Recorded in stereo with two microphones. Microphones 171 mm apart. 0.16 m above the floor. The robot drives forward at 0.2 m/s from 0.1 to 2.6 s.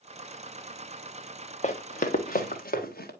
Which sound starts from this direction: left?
Running footsteps, at 1.6 s.